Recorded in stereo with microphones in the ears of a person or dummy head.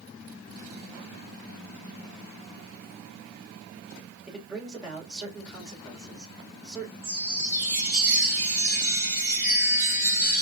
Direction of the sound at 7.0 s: 5° right (ahead or behind).